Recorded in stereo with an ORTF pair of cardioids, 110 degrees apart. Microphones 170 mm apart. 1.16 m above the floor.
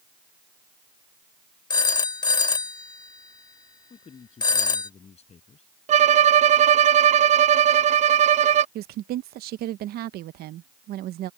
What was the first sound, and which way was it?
A phone ringing, 25° left.